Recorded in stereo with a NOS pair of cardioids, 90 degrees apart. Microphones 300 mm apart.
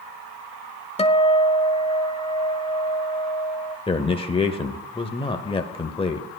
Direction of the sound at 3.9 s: 15° left.